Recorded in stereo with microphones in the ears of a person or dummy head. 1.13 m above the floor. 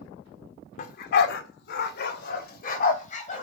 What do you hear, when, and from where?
0.8 s a dog barking: 50° left (ahead or behind), 1.2 m; by 3.4 s 45° left (ahead or behind), 2.5 m